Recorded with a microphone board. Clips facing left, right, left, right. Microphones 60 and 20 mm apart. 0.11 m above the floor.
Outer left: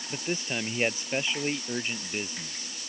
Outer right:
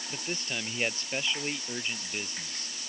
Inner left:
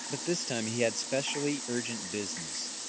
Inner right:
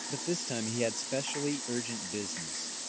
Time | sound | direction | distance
0.1 | a man speaking | 20° left (ahead or behind) | ?